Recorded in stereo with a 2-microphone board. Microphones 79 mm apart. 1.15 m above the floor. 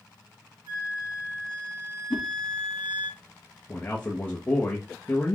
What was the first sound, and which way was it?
A flute, 80° right.